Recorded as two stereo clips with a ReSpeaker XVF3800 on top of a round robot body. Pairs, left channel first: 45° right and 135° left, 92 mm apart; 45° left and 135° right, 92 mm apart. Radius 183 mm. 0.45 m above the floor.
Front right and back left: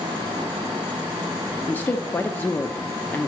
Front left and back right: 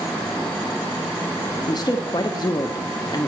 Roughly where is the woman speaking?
Ahead.